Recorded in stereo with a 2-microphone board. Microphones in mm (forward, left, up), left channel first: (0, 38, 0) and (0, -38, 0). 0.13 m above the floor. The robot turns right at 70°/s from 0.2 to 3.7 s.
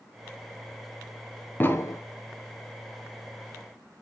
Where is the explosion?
25° left (ahead or behind), 0.9 m; by 2.0 s 45° left (ahead or behind), 0.9 m.